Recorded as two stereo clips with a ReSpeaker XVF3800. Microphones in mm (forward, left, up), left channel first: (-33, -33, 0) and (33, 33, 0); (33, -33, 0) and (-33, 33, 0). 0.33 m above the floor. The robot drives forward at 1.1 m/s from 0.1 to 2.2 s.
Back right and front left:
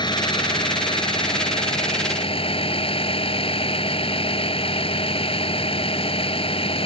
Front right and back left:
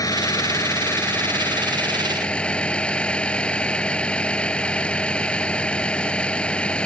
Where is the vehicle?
100° right; by 6.8 s 125° right.